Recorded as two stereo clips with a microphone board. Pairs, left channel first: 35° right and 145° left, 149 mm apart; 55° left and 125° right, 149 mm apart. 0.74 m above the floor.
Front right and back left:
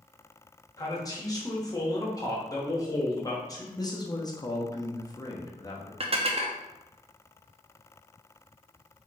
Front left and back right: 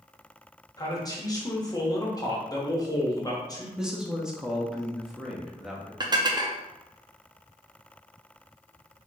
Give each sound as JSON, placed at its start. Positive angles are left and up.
{"t": 0.8, "sound": "a man speaking", "azimuth_deg": 10, "distance_m": 0.9}
{"t": 3.8, "sound": "a man speaking", "azimuth_deg": -45, "distance_m": 0.7}
{"t": 6.0, "sound": "dishes clattering", "azimuth_deg": 180, "distance_m": 0.5}